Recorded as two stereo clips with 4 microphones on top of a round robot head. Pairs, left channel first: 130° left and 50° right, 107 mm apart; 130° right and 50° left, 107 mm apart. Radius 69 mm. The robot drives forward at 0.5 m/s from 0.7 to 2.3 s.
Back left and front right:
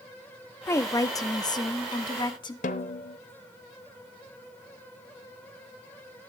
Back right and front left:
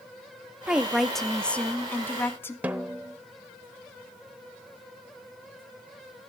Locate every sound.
0.7 s a woman speaking: 120° left, 0.8 m; by 2.5 s 165° left, 1.2 m
2.6 s a snare drum: 125° left, 0.8 m